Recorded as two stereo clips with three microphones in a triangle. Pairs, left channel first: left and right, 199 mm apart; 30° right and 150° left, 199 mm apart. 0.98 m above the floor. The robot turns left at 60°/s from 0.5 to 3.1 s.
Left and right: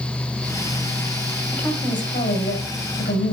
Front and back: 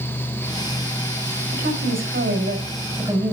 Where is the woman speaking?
170° left, 6 m; by 3.3 s 75° left, 6 m.